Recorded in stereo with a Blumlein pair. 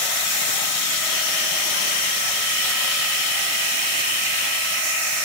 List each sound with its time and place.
Only background noise.